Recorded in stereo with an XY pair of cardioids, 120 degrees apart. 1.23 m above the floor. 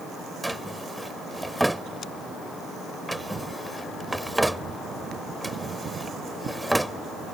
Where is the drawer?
Straight ahead.